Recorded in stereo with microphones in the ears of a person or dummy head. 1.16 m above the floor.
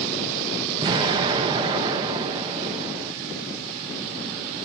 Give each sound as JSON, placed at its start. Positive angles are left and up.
{"t": 0.8, "sound": "an explosion", "side_deg": -20, "distance_m": 0.5}